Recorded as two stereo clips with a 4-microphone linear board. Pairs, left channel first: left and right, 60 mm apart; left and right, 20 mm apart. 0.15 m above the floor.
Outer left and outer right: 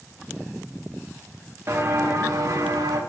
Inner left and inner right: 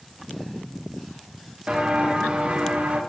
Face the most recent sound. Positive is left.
turn(degrees=-80)